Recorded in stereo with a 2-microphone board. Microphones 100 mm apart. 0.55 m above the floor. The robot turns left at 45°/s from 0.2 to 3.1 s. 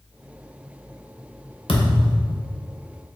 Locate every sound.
1.7 s a thud: 70° left, 0.9 m; by 2.4 s 35° left, 0.9 m